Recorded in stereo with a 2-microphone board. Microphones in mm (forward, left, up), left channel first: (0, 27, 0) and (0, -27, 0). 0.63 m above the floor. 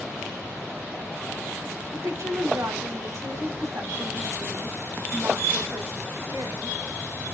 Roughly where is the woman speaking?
Right.